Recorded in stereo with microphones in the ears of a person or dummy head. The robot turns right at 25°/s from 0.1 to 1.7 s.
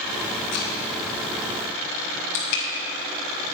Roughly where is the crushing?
Left.